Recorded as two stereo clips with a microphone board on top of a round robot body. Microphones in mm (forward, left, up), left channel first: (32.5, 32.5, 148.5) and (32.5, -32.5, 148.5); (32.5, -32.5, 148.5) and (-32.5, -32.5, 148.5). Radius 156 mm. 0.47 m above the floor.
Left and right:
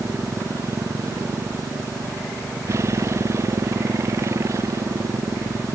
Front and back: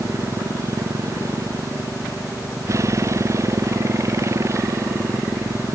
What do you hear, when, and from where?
0.0 s a motorcycle: 140° right; by 5.8 s 135° right